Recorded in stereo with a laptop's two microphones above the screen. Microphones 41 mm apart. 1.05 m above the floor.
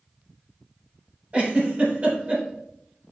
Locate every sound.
1.3 s a giggle: 35° right (ahead or behind), 3.5 m